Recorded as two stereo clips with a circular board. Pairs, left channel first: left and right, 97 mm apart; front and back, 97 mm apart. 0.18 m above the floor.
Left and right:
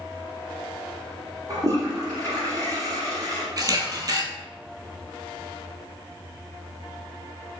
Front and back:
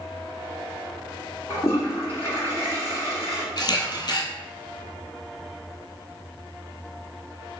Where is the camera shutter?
40° right, 0.9 m.